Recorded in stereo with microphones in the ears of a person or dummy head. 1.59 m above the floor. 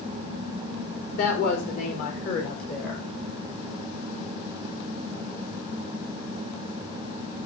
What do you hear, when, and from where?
1.1 s a woman speaking: 45° left (ahead or behind), 3.5 m; by 3.1 s 50° left (ahead or behind), 4.5 m